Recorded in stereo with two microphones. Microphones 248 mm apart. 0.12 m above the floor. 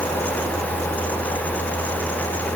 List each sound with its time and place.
Only background noise.